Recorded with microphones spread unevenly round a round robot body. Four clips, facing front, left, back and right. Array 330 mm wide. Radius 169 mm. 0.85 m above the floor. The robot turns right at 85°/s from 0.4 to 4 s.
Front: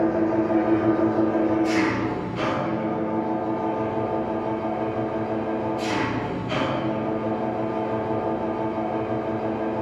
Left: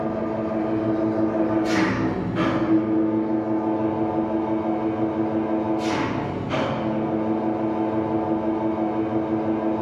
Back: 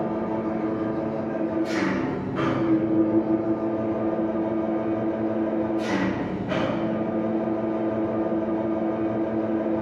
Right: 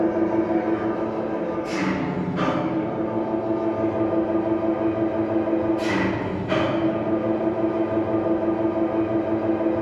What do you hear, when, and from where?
0.0 s an engine running: 50° right, 9.5 m; by 9.8 s 105° right, 9.5 m